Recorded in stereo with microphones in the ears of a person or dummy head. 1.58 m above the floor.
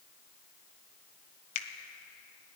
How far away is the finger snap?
About 1.2 m.